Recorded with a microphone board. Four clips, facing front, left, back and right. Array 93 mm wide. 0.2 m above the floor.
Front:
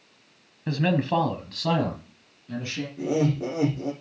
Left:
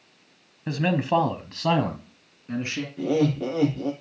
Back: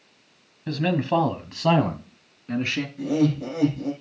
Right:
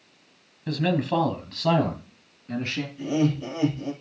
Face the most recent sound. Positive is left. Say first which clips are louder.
# left 2 dB, back 2 dB
turn(degrees=65)